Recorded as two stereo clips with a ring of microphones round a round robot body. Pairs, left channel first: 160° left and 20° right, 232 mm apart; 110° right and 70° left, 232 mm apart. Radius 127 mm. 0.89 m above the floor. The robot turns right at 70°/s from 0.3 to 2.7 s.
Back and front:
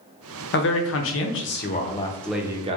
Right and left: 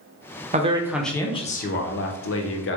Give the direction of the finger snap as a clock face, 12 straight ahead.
I don't hear a finger snap.